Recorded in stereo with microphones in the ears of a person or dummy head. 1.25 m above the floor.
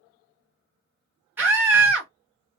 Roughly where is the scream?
Centre.